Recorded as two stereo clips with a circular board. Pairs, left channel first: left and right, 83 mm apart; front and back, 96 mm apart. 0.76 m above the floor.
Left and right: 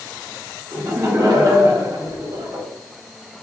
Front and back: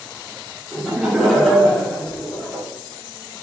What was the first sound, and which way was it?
Laughter, 110° right.